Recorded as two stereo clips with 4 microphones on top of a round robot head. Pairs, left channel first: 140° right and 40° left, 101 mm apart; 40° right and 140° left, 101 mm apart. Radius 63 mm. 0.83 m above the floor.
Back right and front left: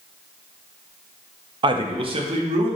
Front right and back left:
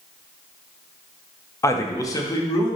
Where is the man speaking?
15° left, 0.7 m.